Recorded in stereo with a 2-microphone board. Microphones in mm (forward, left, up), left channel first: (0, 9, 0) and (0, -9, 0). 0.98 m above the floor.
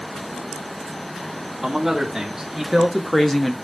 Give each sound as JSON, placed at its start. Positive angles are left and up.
{"t": 1.6, "sound": "a man speaking", "side_deg": -25, "distance_m": 3.0}